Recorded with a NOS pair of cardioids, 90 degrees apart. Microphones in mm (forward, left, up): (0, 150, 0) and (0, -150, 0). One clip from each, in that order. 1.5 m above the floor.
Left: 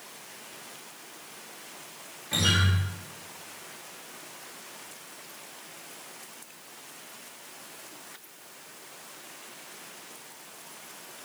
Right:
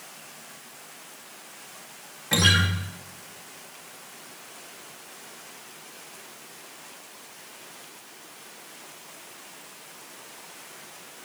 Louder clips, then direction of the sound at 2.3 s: Right 5 dB; 60° right.